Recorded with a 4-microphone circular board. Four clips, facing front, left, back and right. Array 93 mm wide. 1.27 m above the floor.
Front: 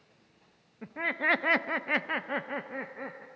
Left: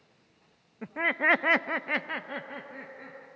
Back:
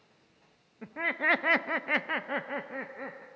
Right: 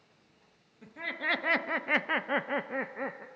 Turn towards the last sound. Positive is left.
turn(degrees=-90)